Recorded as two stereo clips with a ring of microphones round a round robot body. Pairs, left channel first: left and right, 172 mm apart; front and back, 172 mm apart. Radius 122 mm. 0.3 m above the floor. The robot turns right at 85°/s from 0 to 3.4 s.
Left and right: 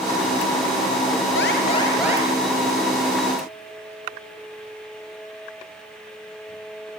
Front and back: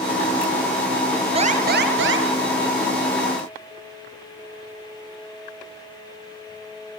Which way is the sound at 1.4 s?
125° left.